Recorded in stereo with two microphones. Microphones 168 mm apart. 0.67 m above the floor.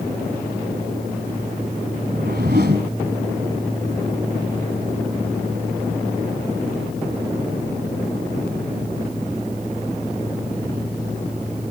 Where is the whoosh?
70° right (ahead or behind), 1.6 m.